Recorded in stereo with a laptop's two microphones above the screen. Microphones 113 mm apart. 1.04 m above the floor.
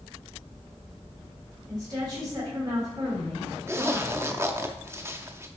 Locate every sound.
1.7 s a woman speaking: 35° right (ahead or behind), 3.5 m
3.7 s a zipper: 20° right (ahead or behind), 0.6 m